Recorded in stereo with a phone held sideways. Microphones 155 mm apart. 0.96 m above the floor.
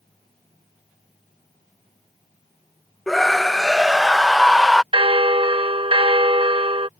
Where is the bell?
35° right (ahead or behind).